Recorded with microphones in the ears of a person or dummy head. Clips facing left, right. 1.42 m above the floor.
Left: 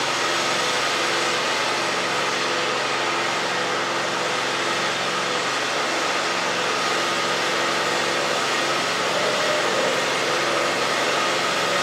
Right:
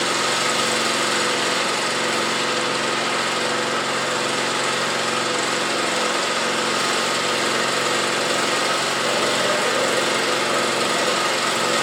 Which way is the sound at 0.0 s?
55° right (ahead or behind).